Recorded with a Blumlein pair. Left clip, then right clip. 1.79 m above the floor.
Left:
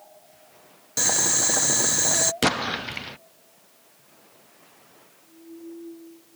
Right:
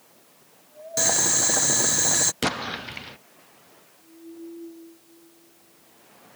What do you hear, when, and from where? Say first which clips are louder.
1.0 s boiling: even; straight ahead
2.4 s an explosion: left 4 dB; 10° left